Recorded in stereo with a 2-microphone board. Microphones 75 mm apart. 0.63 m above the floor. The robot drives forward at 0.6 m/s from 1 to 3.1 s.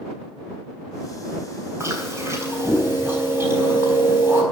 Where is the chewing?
40° right (ahead or behind), 4 m; by 4.4 s 35° right (ahead or behind), 4.5 m.